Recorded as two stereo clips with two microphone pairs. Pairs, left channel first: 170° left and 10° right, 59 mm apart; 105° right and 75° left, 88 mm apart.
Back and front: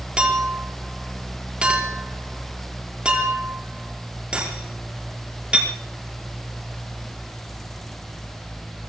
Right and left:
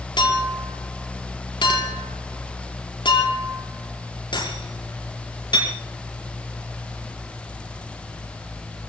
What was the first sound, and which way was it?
A clink, 80° right.